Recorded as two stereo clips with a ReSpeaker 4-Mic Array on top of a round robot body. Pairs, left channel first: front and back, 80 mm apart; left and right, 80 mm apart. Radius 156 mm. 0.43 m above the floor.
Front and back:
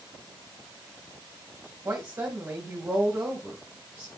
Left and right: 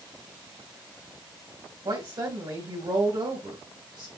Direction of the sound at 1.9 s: 130° right.